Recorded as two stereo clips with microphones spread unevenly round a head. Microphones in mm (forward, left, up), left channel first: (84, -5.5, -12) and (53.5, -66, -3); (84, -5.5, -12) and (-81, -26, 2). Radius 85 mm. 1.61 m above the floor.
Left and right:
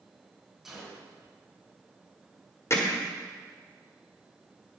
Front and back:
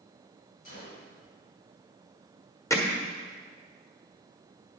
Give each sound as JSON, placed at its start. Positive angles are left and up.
{"t": 0.7, "sound": "a gunshot", "azimuth_deg": -35, "distance_m": 4.5}
{"t": 2.7, "sound": "hammering", "azimuth_deg": 75, "distance_m": 1.4}